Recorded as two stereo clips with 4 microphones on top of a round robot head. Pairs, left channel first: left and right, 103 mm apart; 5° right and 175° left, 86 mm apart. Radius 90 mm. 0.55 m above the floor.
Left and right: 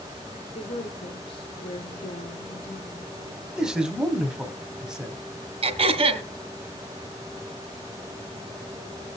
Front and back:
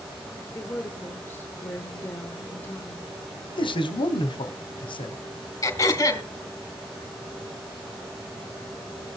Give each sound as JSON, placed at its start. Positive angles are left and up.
{"t": 0.6, "sound": "a woman speaking", "azimuth_deg": 55, "distance_m": 2.0}
{"t": 3.5, "sound": "a man speaking", "azimuth_deg": -10, "distance_m": 1.9}
{"t": 5.6, "sound": "throat clearing", "azimuth_deg": -60, "distance_m": 2.5}